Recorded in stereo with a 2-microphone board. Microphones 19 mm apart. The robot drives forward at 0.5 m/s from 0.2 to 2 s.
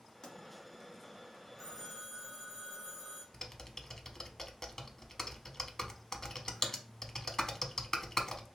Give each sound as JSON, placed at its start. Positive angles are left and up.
{"t": 0.2, "sound": "a pop", "side_deg": 40, "distance_m": 0.9}
{"t": 1.6, "sound": "a phone ringing", "side_deg": 15, "distance_m": 1.5}
{"t": 3.3, "sound": "typing on a keyboard", "side_deg": 20, "distance_m": 0.6}